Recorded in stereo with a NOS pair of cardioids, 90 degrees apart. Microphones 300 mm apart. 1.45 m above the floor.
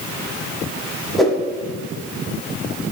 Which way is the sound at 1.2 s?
Straight ahead.